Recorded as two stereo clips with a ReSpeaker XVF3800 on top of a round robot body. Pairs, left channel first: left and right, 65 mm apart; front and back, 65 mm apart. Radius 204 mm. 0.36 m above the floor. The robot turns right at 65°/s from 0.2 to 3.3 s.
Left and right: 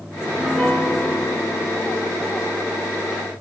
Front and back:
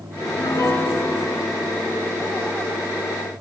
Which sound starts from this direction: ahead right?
A piano, at 0.2 s.